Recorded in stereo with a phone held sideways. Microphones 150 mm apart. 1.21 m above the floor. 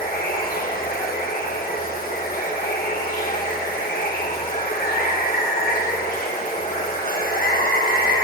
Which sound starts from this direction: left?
Running water, at 0.0 s.